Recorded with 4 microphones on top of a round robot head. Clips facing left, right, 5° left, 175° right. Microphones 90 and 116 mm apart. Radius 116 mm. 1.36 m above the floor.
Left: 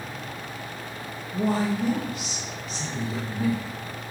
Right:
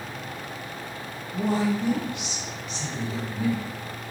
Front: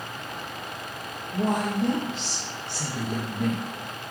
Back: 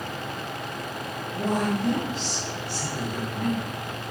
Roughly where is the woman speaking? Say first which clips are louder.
Even, even; ahead left.